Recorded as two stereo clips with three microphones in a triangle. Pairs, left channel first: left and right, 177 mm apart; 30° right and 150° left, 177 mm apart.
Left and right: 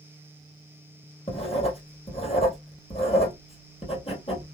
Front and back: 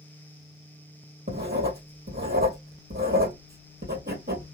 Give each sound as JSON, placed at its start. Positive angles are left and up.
{"t": 1.3, "sound": "writing", "azimuth_deg": 140, "distance_m": 2.0}